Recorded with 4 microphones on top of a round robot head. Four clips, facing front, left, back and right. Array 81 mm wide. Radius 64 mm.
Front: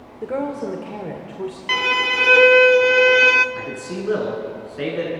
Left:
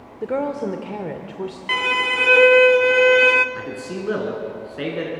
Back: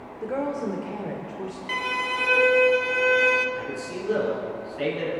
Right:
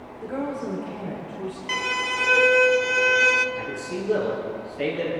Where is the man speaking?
60° left, 6 m.